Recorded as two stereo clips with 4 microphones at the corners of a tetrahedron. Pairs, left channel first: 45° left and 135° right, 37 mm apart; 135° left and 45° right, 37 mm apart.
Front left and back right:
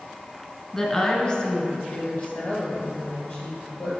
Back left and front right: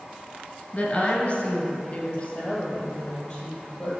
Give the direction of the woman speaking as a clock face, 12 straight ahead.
8 o'clock.